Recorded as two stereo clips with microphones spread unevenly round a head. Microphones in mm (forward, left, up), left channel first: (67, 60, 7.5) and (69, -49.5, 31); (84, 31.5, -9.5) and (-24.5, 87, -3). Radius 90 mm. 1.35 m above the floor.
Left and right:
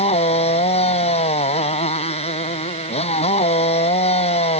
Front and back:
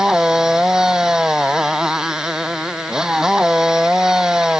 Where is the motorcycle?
70° left.